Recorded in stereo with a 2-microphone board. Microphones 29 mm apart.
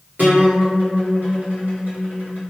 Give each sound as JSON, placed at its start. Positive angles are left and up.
{"t": 0.2, "sound": "a guitar", "side_deg": -70, "distance_m": 1.6}